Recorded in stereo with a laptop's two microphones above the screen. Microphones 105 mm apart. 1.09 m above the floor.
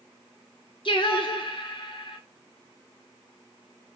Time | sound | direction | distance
0.8 | singing | 55° left (ahead or behind) | 0.8 m